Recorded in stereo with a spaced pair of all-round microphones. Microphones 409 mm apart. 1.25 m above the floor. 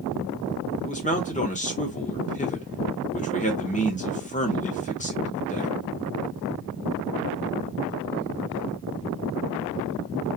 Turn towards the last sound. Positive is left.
turn(degrees=20)  # may be behind; listen again after turning